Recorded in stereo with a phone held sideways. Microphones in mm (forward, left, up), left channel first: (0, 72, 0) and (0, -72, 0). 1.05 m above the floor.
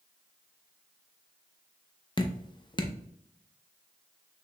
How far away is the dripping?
About 0.6 m.